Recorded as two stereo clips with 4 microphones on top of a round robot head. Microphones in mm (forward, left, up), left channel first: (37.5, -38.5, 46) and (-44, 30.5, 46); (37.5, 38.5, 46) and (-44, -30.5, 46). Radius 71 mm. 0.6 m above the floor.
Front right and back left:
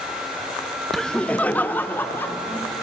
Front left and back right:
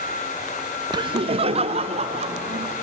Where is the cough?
No cough in this recording.